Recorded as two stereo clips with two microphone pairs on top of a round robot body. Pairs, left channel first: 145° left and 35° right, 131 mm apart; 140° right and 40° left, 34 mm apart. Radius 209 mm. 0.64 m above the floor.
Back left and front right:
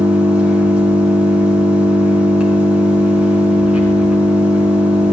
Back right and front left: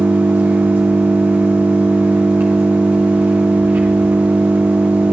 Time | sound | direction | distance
0.0 | an engine running | 45° left | 2 m